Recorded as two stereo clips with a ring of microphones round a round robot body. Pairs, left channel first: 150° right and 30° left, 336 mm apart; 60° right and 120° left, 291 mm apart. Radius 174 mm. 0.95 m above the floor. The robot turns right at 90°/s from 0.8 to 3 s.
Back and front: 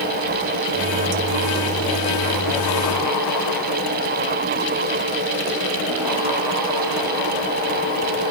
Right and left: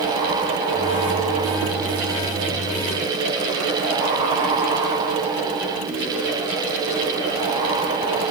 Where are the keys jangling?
No keys jangling in this recording.